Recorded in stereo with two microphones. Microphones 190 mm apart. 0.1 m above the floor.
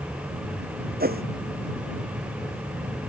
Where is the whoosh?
55° right (ahead or behind).